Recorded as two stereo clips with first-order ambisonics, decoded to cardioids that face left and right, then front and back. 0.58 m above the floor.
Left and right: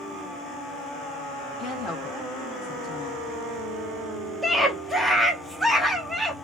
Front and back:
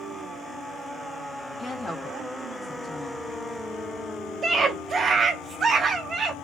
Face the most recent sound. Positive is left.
turn(degrees=-175)